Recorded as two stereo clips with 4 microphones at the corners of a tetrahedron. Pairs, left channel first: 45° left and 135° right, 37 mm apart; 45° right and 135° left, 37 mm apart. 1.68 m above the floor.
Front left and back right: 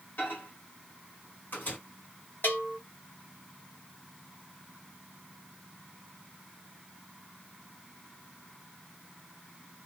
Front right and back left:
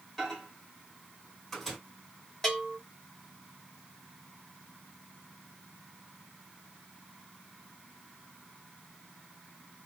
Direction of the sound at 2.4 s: 30° left.